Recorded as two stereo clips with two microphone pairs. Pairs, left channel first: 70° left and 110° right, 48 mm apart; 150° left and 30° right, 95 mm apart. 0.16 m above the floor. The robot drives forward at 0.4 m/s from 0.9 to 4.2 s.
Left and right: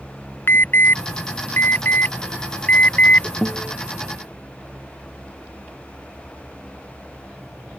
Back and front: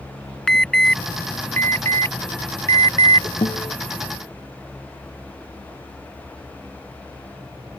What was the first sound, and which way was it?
An alarm, 65° left.